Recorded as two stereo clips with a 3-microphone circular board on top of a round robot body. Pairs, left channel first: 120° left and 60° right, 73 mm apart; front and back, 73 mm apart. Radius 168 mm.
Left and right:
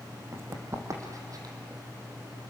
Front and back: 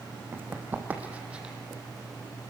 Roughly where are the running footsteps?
Behind right.